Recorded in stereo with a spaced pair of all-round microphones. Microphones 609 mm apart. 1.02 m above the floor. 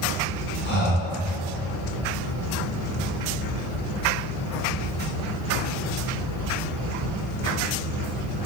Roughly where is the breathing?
Centre.